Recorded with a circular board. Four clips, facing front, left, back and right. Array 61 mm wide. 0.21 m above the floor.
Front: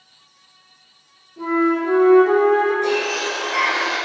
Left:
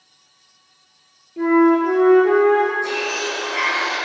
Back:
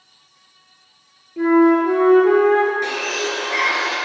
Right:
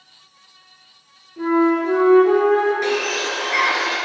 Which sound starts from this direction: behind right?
A bird, at 2.8 s.